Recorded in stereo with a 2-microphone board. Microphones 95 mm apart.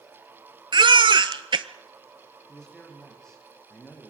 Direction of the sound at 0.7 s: 55° right (ahead or behind).